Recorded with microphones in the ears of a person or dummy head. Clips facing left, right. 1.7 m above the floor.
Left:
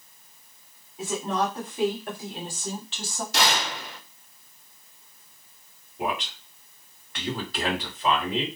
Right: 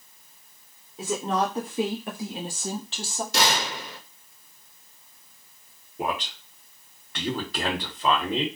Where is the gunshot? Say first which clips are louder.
Even; 70° right (ahead or behind), 1.3 m.